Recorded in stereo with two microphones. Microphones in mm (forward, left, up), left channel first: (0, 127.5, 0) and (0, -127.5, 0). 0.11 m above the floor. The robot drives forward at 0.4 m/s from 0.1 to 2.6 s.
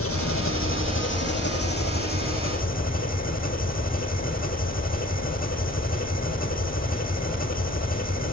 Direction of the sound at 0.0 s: 65° left (ahead or behind).